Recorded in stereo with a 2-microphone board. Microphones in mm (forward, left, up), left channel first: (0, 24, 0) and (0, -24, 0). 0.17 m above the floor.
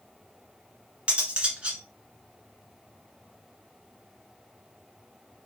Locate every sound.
1.1 s cutlery clinking: 20° right (ahead or behind), 1.4 m